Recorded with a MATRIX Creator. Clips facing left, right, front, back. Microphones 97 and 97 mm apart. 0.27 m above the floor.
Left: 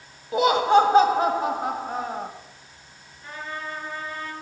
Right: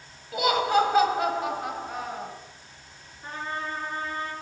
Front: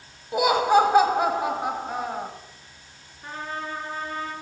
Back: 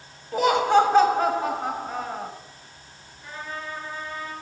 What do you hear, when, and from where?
0.3 s laughter: 70° left, 1.4 m
3.2 s a trumpet: 40° right, 3.5 m